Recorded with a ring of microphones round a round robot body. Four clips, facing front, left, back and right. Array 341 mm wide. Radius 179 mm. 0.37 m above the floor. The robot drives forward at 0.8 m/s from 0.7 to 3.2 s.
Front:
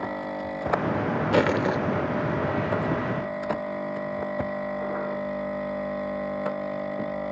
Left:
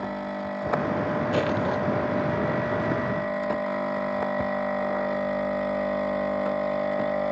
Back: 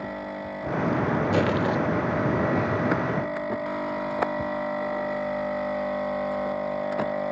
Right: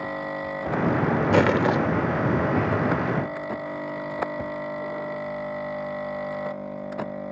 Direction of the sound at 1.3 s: 60° right.